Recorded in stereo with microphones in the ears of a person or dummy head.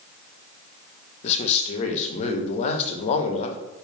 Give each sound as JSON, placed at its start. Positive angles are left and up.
{"t": 1.2, "sound": "a man speaking", "side_deg": 40, "distance_m": 0.6}